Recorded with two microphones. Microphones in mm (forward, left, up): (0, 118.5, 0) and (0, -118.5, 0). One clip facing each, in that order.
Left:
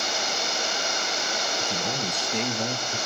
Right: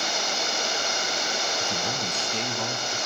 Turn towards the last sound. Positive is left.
turn(degrees=30)  # may be behind; listen again after turning